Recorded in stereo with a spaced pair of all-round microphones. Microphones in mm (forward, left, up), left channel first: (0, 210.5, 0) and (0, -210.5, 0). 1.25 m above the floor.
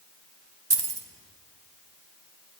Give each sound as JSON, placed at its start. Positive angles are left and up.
{"t": 0.7, "sound": "keys jangling", "side_deg": -65, "distance_m": 0.7}